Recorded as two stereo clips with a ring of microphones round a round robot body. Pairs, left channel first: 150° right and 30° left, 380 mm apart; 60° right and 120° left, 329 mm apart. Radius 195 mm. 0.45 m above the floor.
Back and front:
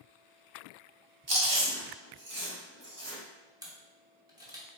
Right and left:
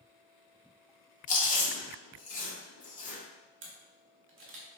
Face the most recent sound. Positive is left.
turn(degrees=105)